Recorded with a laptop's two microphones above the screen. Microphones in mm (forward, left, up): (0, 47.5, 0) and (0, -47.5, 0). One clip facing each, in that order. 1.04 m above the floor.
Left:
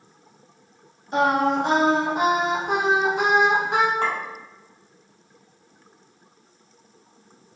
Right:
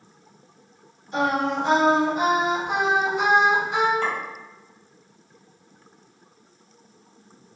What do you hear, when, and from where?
1.1 s singing: 70° left (ahead or behind), 0.9 m
4.0 s a clink: 80° left, 1.6 m